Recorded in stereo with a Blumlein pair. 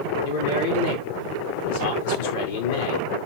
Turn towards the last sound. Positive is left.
turn(degrees=65)